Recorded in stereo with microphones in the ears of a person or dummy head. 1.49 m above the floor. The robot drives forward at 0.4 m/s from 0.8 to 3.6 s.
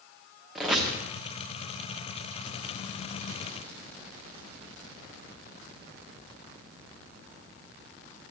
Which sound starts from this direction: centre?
A squeak, at 0.6 s.